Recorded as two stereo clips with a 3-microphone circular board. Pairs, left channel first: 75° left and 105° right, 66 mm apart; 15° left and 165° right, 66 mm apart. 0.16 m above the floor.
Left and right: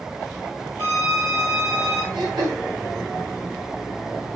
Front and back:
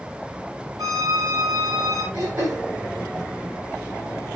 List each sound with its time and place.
0.8 s a violin: 150° right, 6 m
2.1 s throat clearing: 125° right, 6 m